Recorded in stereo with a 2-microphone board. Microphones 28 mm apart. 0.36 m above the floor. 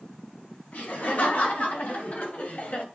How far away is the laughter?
About 3.5 m.